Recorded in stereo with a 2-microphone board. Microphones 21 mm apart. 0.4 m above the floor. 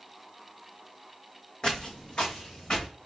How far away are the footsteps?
About 0.8 m.